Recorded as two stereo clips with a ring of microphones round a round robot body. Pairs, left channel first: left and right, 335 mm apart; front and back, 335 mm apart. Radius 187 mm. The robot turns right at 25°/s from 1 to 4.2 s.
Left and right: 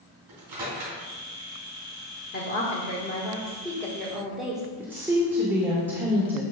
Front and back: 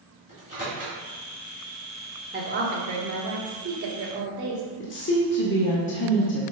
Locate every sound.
0.3 s a microwave: 60° right, 2.5 m
2.3 s a woman speaking: 135° left, 1.4 m; by 4.6 s 175° right, 1.4 m
4.8 s a woman speaking: 10° right, 1.1 m